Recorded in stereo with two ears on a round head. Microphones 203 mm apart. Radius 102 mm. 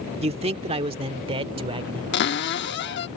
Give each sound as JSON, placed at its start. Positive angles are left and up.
{"t": 0.2, "sound": "a man speaking", "side_deg": -25}
{"t": 2.1, "sound": "a cupboard door", "side_deg": 50}